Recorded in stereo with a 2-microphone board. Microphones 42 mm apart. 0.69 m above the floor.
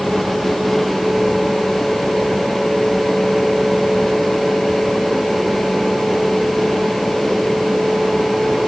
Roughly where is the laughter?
No laughter in this recording.